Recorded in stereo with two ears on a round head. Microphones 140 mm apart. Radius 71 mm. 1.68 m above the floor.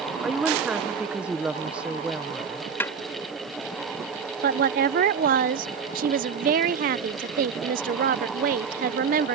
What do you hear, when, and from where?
0.2 s a woman speaking: 5° right (ahead or behind)
2.8 s a snare drum: 15° left (ahead or behind)
4.4 s a woman speaking: 55° right (ahead or behind)